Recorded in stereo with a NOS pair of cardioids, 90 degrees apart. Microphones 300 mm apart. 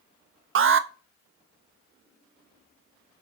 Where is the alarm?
45° right, 1.0 m.